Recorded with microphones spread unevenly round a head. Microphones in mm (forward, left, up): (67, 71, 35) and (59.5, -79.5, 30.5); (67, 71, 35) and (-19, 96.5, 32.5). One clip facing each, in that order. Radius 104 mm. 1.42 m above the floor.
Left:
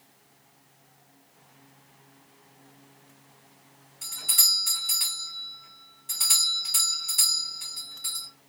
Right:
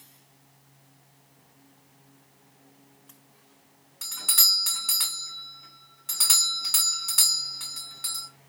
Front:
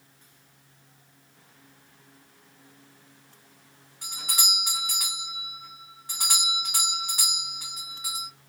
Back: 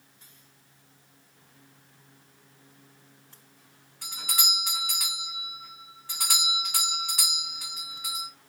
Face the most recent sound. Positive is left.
turn(degrees=-95)